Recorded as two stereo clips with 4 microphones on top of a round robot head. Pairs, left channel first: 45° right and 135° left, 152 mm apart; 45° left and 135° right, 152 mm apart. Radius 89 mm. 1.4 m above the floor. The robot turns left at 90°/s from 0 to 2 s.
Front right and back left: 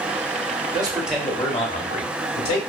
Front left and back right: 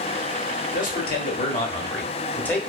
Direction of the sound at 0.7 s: 80° left.